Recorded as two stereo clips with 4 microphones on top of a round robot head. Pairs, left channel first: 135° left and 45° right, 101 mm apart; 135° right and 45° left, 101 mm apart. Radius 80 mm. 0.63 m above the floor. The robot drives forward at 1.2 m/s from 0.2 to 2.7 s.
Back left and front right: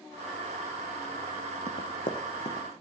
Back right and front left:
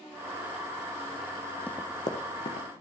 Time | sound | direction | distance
1.7 | running footsteps | 150° left | 1.0 m